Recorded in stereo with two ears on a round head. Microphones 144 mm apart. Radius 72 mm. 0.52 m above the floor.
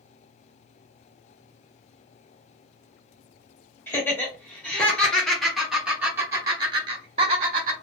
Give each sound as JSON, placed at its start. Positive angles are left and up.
{"t": 3.9, "sound": "laughter", "side_deg": 15, "distance_m": 1.7}